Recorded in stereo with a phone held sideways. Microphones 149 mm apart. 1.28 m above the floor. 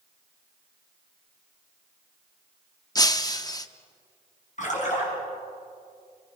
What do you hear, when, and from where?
3.0 s breaking glass: 25° left (ahead or behind), 0.9 m
4.6 s a splash: 55° left (ahead or behind), 6 m